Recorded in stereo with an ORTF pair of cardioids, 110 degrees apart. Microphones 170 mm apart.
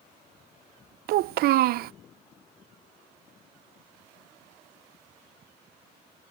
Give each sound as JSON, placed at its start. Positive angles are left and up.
{"t": 1.1, "sound": "a child speaking", "azimuth_deg": -65}